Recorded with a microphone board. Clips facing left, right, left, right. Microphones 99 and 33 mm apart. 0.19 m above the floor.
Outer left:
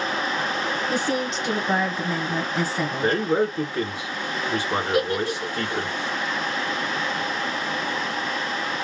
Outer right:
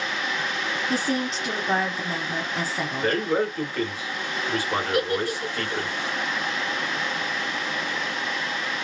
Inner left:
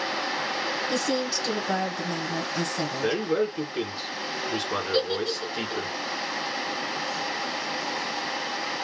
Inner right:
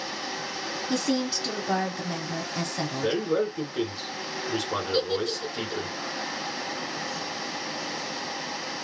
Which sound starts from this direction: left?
A giggle, at 4.9 s.